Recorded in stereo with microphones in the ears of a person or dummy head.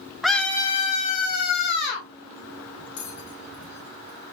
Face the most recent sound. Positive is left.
turn(degrees=65)  # may be behind; listen again after turning